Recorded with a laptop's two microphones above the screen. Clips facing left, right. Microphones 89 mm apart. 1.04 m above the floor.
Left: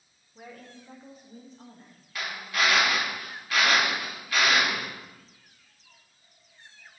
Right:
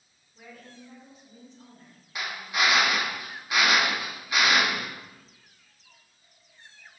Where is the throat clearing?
No throat clearing in this recording.